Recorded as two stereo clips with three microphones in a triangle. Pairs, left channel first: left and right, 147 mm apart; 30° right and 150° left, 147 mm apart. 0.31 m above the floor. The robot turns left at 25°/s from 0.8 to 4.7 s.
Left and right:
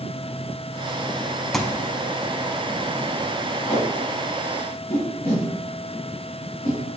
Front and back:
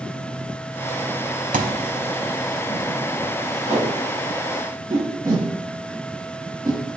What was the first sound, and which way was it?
A thud, straight behind.